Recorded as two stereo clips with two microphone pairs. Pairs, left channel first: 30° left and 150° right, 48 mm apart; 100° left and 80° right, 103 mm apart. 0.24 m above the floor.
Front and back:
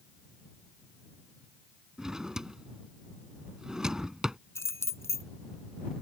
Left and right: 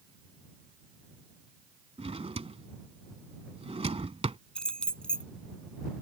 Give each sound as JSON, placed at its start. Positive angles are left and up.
{"t": 2.0, "sound": "a drawer", "azimuth_deg": -75}
{"t": 4.5, "sound": "keys jangling", "azimuth_deg": 20}